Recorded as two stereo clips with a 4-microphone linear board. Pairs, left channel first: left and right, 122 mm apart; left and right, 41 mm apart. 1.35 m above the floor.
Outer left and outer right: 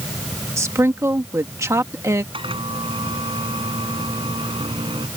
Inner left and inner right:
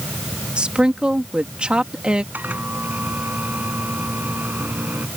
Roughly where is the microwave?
Right.